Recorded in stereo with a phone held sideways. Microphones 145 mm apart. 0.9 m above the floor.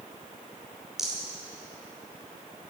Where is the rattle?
5° right (ahead or behind), 2.5 m.